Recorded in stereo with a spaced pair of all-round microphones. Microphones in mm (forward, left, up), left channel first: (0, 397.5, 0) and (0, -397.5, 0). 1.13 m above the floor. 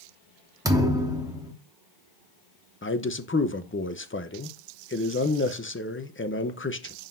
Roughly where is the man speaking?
Centre.